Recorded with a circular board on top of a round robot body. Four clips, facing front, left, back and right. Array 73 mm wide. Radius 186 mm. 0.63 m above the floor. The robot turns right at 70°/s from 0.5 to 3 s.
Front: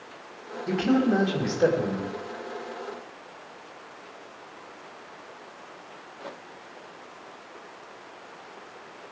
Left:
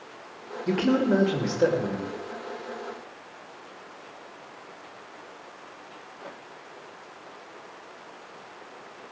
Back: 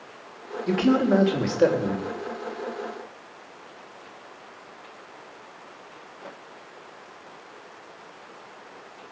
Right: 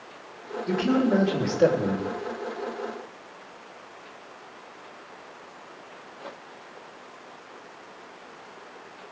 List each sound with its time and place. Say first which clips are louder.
0.7 s a man speaking: even, back 2 dB; 125° left, 4 m; by 2.0 s 140° right, 4 m